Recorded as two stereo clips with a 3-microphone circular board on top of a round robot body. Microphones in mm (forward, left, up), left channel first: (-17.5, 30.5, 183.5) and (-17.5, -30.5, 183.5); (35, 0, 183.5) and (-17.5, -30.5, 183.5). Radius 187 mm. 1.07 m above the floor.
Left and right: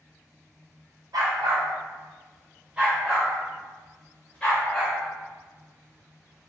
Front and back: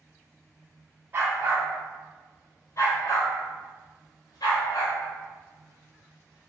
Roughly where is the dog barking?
Right.